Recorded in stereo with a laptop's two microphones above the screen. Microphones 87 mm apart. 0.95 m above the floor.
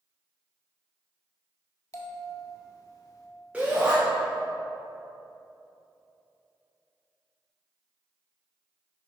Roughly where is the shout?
Centre.